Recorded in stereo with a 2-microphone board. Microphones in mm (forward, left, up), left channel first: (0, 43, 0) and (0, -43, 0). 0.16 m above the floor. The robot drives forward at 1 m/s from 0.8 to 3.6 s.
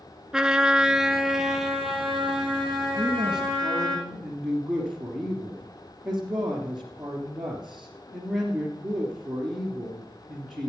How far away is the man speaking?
About 2 m.